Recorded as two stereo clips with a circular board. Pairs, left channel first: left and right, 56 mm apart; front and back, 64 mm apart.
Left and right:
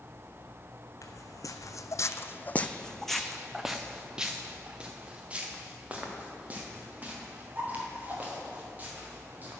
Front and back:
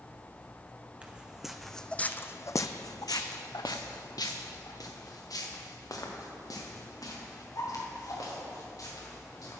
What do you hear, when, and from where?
1.0 s footsteps: 110° left, 0.7 m; by 9.6 s 30° right, 4 m